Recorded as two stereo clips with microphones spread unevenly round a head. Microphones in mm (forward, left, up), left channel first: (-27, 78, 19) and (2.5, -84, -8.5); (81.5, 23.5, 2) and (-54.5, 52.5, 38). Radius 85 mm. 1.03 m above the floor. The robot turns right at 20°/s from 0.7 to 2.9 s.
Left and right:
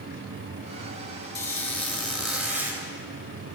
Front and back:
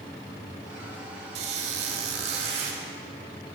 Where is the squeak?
170° left, 2.5 m; by 2.8 s 160° right, 2.5 m.